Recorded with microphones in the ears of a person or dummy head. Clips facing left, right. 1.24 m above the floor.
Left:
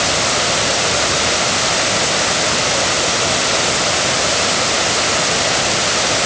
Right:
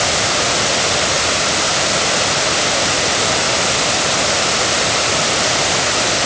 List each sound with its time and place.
Only background noise.